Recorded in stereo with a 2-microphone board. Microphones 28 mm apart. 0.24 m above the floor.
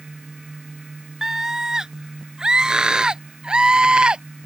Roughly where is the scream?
Right.